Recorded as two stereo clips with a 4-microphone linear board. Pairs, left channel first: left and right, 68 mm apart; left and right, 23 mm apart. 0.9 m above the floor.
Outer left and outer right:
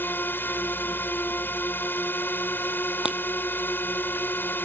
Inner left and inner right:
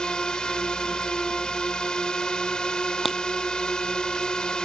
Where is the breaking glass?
15° right (ahead or behind).